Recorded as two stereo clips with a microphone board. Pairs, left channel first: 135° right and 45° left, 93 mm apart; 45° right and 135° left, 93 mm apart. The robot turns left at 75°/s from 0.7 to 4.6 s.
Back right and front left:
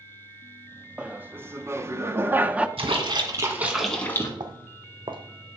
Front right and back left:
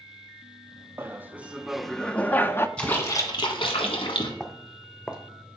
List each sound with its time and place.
1.0 s laughter: 110° left, 0.6 m; by 2.7 s 20° right, 0.6 m
2.8 s a splash: 35° left, 1.6 m; by 4.3 s 80° right, 1.6 m
4.4 s footsteps: 50° left, 0.8 m; by 5.6 s 60° left, 1.3 m